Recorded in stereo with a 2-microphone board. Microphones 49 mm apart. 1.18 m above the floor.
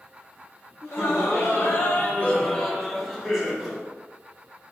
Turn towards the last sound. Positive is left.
turn(degrees=-10)  # may be behind; listen again after turning